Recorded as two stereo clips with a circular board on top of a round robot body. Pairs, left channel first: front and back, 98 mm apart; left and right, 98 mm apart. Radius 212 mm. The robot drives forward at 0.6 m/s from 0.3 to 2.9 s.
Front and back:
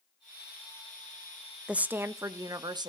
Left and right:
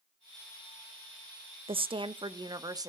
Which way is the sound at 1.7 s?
100° right.